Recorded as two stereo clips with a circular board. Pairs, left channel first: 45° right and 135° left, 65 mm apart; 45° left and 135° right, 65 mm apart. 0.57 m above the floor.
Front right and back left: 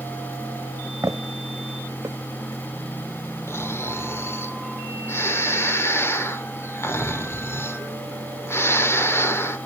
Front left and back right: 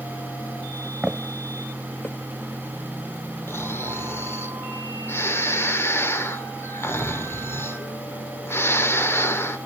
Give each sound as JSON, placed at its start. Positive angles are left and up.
{"t": 1.0, "sound": "footsteps", "azimuth_deg": 155, "distance_m": 1.2}
{"t": 3.5, "sound": "snoring", "azimuth_deg": 0, "distance_m": 1.5}